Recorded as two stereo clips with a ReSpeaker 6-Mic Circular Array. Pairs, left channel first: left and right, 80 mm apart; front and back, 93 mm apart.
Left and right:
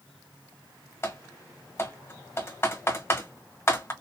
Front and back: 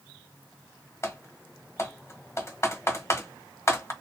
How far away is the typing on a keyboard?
About 1.2 m.